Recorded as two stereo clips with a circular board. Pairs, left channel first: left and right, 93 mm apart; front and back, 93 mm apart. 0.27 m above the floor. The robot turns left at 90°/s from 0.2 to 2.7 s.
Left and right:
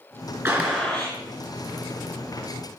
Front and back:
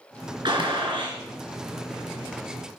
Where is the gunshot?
150° right, 2.5 m; by 1.2 s 145° left, 2.5 m.